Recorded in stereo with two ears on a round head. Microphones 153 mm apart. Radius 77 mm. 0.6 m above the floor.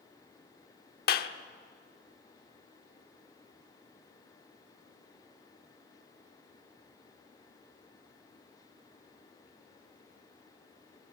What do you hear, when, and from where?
1.1 s a clap: 60° left (ahead or behind), 1.1 m